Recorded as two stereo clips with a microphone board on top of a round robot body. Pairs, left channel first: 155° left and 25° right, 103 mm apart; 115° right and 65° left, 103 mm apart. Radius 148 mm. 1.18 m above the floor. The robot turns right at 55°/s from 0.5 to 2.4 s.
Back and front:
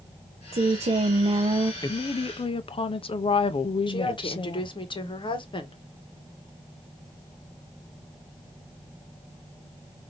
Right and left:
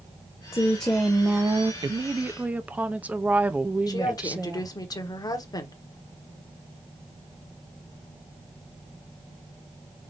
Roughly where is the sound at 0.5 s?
Ahead right.